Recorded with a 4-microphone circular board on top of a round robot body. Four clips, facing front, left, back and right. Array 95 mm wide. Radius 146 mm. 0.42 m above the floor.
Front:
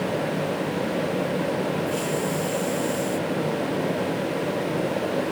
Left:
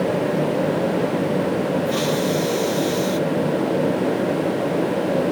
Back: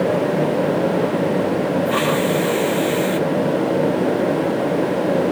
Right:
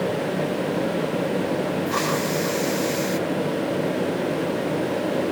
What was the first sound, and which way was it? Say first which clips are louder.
A hiss: left 3 dB, back 8 dB; 150° right.